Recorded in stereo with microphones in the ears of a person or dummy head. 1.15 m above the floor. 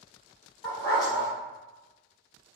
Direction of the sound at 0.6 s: 25° left (ahead or behind).